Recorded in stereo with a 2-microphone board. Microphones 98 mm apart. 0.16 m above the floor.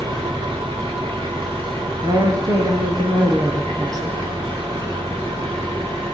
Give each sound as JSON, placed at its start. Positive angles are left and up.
{"t": 0.0, "sound": "an engine running", "side_deg": -55, "distance_m": 8.5}
{"t": 2.0, "sound": "a woman speaking", "side_deg": -40, "distance_m": 5.5}